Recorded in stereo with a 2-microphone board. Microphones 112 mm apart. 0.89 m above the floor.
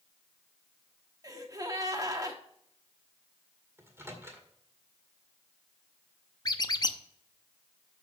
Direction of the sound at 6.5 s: 35° left (ahead or behind).